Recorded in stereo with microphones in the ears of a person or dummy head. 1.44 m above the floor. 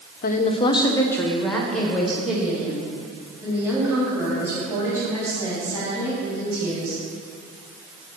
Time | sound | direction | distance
0.2 | a woman speaking | 45° left (ahead or behind) | 0.7 m